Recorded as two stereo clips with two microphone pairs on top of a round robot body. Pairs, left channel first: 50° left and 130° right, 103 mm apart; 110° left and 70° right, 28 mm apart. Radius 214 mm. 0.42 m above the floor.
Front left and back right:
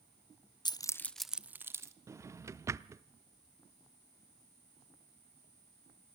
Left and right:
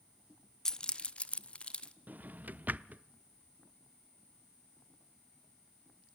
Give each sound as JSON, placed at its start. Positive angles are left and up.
{"t": 0.7, "sound": "keys jangling", "azimuth_deg": 50, "distance_m": 1.0}
{"t": 2.1, "sound": "a drawer", "azimuth_deg": -70, "distance_m": 0.7}